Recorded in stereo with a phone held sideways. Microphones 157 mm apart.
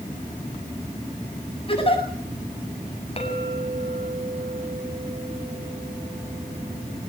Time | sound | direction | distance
1.7 | a giggle | 35° left (ahead or behind) | 8.5 m
3.2 | a clink | 40° left (ahead or behind) | 6.5 m